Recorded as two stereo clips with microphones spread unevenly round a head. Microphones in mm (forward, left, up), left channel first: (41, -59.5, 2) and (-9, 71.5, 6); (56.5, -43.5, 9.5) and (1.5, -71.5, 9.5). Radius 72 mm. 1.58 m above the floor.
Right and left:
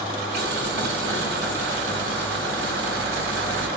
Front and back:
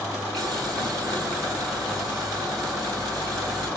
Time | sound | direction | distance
0.3 | boiling | 120° left | 4.5 m